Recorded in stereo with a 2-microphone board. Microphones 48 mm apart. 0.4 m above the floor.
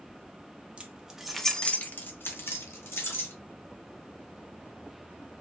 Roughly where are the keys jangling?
Right.